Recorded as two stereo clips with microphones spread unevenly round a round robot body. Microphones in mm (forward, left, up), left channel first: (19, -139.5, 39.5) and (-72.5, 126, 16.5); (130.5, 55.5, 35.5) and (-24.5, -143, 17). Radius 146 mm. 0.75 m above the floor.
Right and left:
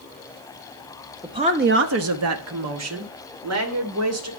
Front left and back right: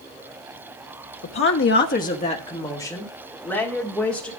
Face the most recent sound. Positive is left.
turn(degrees=140)